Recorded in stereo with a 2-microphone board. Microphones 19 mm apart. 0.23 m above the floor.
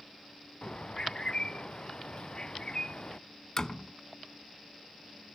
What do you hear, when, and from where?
0.6 s a bird: 40° left (ahead or behind)
3.6 s a door slam: 40° left (ahead or behind)